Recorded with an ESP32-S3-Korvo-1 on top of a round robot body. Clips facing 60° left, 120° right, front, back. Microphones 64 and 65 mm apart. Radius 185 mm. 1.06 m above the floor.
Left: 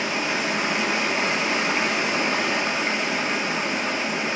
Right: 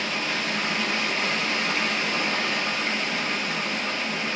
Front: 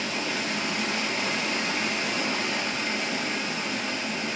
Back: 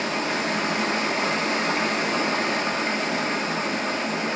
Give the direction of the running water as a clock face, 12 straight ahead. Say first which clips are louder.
Left 3 dB, back 5 dB; 8 o'clock.